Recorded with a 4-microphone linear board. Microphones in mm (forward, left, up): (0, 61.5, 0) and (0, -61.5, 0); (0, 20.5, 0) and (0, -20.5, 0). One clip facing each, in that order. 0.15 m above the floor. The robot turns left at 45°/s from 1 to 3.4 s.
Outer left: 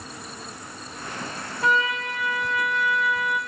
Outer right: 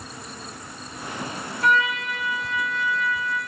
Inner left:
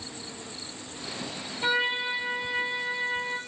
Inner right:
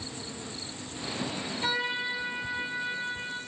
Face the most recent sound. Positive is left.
turn(degrees=75)